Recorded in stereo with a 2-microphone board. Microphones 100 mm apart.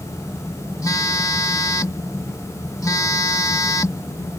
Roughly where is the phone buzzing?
Left.